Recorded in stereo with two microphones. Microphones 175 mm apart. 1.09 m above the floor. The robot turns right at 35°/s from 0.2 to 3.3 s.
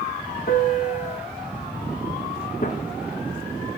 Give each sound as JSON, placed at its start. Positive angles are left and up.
{"t": 0.5, "sound": "a piano", "side_deg": 55, "distance_m": 0.9}
{"t": 2.6, "sound": "a gunshot", "side_deg": 45, "distance_m": 0.9}